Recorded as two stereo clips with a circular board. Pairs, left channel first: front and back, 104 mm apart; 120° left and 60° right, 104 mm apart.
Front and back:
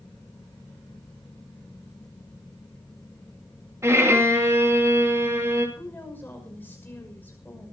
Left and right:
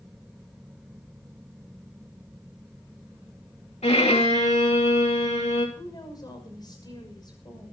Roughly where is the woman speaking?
Left.